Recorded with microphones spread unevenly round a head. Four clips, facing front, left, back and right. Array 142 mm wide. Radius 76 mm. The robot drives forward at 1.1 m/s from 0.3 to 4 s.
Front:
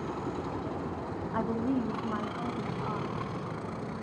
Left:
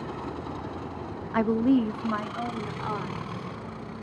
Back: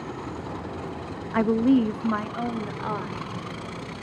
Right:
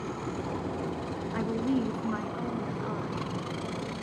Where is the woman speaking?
165° left, 0.9 m; by 3.3 s 175° left, 3 m.